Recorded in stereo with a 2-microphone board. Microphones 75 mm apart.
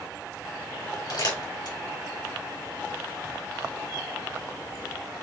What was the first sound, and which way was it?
Crumpling, 65° left (ahead or behind).